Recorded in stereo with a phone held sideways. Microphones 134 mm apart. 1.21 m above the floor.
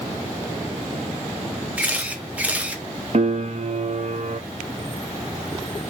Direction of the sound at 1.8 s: 10° right (ahead or behind).